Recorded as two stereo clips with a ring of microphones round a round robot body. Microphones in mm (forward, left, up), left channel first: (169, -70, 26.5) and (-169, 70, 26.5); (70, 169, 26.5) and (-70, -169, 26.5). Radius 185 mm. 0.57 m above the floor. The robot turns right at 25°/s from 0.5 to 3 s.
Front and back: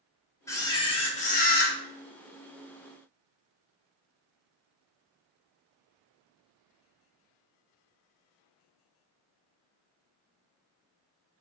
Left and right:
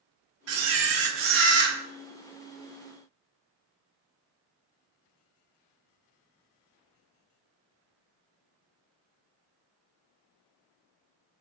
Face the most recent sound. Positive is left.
turn(degrees=-40)